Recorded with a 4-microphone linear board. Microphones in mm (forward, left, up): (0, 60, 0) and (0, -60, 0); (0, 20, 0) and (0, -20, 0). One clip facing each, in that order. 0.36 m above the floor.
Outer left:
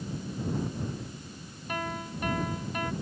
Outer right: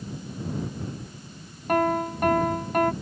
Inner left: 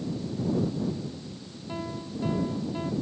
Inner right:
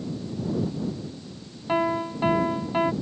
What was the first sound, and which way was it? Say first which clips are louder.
A piano: outer right 12 dB, inner right 11 dB; 60° right (ahead or behind).